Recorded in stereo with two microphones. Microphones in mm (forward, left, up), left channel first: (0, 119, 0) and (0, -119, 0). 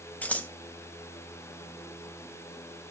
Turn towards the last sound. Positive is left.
turn(degrees=5)  # may be behind; listen again after turning